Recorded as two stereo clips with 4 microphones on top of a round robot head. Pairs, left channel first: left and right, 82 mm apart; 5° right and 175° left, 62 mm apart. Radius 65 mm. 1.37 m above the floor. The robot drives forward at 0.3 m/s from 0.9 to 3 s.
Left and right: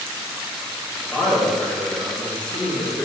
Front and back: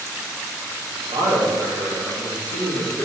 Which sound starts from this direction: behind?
A man speaking, at 1.1 s.